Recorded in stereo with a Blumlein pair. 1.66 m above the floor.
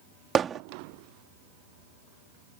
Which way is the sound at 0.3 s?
20° right.